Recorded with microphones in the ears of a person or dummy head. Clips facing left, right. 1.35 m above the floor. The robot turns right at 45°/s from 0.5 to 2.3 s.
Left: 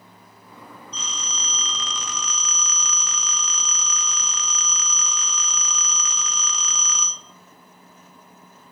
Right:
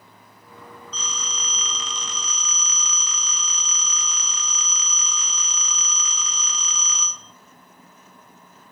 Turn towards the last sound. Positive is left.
turn(degrees=85)